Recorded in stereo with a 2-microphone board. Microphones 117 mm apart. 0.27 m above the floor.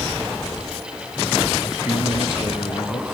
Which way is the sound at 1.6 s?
50° left (ahead or behind).